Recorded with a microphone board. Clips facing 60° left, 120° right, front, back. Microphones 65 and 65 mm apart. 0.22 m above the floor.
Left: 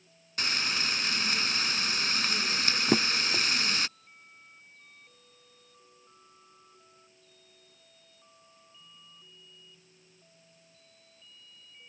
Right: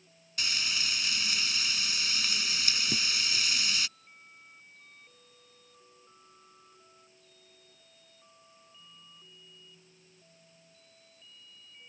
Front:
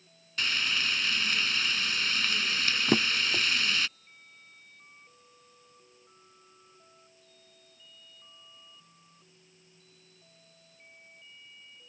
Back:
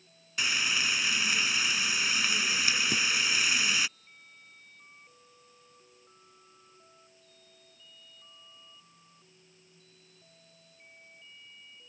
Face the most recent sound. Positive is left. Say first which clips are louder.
# left 7 dB, front 3 dB
turn(degrees=40)